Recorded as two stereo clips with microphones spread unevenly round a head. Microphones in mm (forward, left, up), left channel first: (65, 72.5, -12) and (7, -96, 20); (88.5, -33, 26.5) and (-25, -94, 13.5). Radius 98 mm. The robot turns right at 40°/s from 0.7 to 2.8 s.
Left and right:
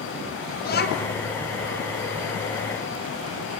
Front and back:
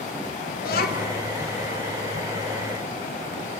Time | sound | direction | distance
0.6 | a child speaking | 30° left | 3.5 m